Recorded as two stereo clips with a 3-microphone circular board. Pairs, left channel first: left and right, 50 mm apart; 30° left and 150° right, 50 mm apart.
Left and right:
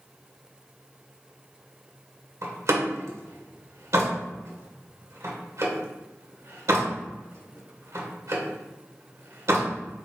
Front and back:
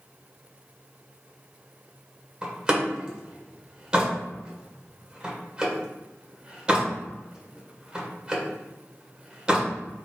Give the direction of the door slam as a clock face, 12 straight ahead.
3 o'clock.